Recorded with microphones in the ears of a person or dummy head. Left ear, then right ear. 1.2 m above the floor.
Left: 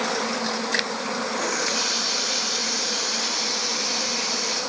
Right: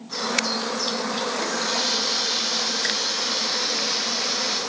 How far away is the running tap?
About 4 m.